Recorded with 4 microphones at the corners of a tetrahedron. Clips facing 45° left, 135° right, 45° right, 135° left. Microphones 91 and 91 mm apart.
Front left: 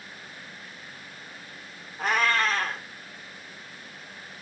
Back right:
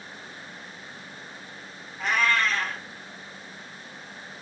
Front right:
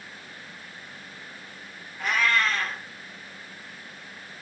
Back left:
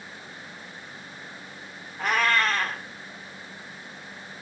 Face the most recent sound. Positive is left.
turn(degrees=90)